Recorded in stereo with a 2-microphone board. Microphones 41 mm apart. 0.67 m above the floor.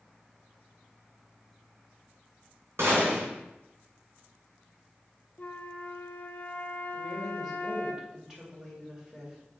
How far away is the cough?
No cough in this recording.